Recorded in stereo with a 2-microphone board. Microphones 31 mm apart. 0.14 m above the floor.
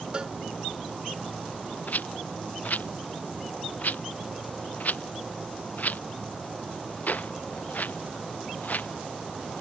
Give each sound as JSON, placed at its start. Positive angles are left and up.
{"t": 0.1, "sound": "a cowbell", "side_deg": -30}
{"t": 1.9, "sound": "a rattle", "side_deg": 60}